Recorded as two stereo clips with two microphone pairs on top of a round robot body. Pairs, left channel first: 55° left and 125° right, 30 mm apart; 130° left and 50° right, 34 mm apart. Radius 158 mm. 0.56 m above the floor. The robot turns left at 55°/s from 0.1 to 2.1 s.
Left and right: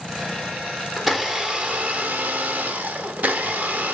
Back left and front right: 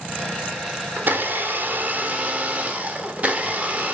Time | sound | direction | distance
1.0 | a blender | 40° right | 1.6 m